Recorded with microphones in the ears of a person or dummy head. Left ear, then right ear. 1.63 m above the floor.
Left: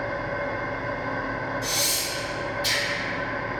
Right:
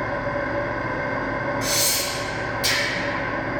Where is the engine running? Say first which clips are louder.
Right 3 dB; 75° right (ahead or behind), 1.8 m.